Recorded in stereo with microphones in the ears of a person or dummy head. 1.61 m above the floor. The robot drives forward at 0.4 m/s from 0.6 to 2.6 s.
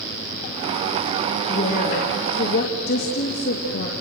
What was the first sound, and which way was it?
A woman speaking, 45° left (ahead or behind).